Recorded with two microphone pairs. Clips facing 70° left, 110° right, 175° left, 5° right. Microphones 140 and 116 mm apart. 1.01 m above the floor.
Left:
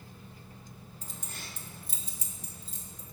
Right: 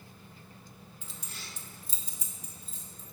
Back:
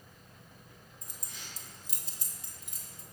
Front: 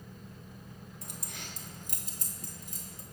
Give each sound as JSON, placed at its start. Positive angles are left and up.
{"t": 1.0, "sound": "keys jangling", "azimuth_deg": 20, "distance_m": 1.0}